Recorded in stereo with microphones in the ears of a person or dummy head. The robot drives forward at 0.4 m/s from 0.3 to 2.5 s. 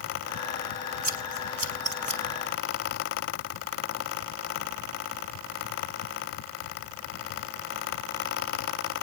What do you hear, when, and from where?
1.0 s scissors: 40° right (ahead or behind), 2 m; by 2.2 s 30° right (ahead or behind), 2.5 m